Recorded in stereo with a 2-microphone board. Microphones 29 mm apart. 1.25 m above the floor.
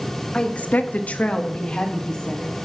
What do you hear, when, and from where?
0.3 s a woman speaking: 35° left (ahead or behind), 0.8 m; by 2.5 s 20° left (ahead or behind), 3 m